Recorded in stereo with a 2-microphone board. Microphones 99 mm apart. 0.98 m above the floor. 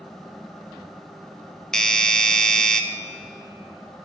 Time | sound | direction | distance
1.7 | a doorbell | 5° left (ahead or behind) | 0.6 m